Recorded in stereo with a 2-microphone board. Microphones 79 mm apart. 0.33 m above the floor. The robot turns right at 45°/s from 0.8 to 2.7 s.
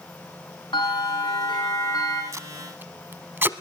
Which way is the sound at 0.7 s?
75° left.